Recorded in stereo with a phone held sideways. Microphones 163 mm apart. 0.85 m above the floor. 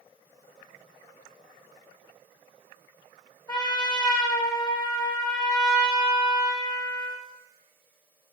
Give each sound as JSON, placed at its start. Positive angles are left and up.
{"t": 3.5, "sound": "a trumpet", "side_deg": 25, "distance_m": 0.6}